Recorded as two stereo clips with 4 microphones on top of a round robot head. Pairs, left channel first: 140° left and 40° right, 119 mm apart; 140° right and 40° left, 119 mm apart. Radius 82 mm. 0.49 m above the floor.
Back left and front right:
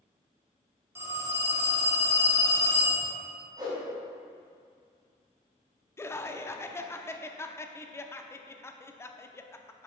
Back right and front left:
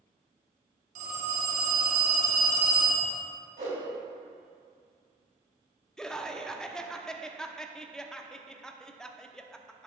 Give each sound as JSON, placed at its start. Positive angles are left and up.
{"t": 0.9, "sound": "a phone ringing", "azimuth_deg": 30, "distance_m": 3.0}
{"t": 3.6, "sound": "a whoosh", "azimuth_deg": 15, "distance_m": 3.0}
{"t": 6.0, "sound": "laughter", "azimuth_deg": 140, "distance_m": 0.7}